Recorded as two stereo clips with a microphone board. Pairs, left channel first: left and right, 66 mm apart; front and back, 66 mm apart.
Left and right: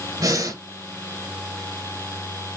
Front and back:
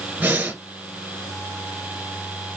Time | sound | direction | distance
0.2 | breathing | 115° right | 1.3 m